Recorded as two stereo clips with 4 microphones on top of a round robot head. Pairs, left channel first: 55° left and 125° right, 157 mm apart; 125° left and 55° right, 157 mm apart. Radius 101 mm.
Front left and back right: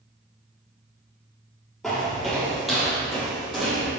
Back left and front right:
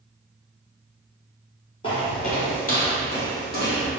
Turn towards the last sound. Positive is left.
turn(degrees=150)